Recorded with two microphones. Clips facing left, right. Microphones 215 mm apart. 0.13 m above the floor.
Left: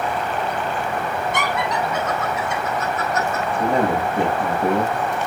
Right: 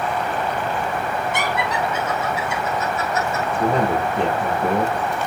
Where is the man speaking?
15° left (ahead or behind), 4.5 m.